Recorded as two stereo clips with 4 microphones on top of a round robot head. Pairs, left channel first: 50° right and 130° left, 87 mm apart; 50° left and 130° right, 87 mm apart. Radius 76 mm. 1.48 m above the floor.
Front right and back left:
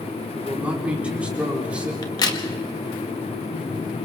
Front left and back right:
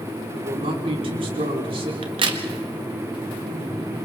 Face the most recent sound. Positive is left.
turn(degrees=-100)